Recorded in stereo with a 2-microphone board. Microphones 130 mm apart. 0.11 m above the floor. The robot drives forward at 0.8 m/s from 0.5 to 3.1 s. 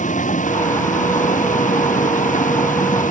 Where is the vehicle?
75° left (ahead or behind); by 3.1 s 80° left.